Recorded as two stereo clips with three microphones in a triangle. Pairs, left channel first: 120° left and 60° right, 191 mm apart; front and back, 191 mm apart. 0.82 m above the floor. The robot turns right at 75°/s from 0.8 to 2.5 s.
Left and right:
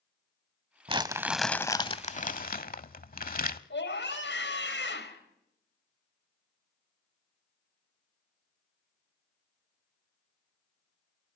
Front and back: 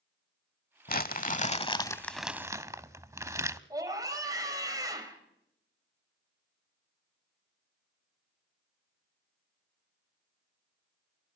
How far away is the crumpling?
About 0.9 m.